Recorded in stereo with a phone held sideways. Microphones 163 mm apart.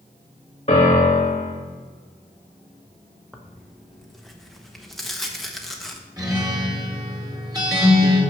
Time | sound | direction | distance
0.7 | a piano | 40° left (ahead or behind) | 2 m
3.3 | tearing paper | centre (ahead or behind) | 1.1 m
6.2 | a guitar | 20° right (ahead or behind) | 2 m